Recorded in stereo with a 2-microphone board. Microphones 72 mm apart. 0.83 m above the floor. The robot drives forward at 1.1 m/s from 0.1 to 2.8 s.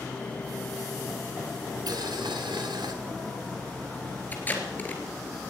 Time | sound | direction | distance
1.9 | boiling | 70° right (ahead or behind) | 1.8 m
4.3 | tape being pulled | 25° left (ahead or behind) | 3 m